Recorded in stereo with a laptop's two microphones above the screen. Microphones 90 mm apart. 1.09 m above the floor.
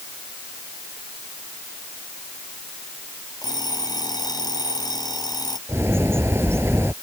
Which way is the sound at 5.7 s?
30° right (ahead or behind).